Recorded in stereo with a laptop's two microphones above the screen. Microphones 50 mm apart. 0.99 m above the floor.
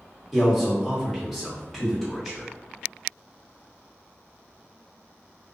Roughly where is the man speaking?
Centre.